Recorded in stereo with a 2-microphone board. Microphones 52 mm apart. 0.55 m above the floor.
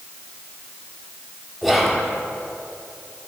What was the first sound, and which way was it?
Whispering, centre (ahead or behind).